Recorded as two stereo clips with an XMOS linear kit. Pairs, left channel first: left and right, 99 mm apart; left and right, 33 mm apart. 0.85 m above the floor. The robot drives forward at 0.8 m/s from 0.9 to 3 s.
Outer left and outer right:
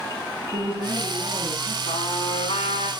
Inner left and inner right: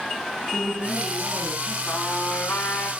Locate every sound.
0.5 s a woman speaking: 70° right (ahead or behind), 8 m; by 1.8 s 65° right (ahead or behind), 8.5 m
1.9 s a trumpet: 80° left, 8.5 m; by 2.9 s 85° left, 8.5 m